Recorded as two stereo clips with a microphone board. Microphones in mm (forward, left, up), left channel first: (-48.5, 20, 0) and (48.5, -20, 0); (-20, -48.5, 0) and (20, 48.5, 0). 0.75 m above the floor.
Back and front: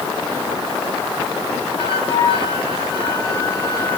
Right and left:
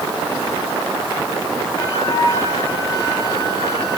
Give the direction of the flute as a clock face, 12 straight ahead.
6 o'clock.